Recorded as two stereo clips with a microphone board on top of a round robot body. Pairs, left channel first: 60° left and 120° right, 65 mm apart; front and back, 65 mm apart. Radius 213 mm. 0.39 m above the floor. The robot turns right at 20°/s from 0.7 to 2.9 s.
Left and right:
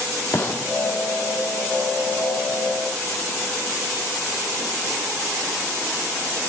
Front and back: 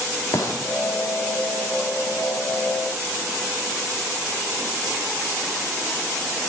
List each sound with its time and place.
0.3 s a gunshot: 5° left, 3 m